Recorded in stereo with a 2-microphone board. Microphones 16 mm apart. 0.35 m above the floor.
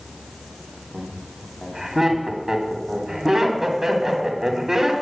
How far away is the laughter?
About 2.5 m.